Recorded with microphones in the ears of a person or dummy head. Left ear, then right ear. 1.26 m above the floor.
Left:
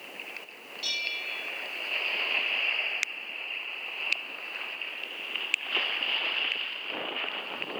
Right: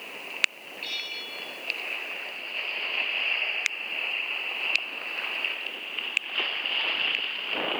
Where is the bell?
55° left (ahead or behind), 5 m.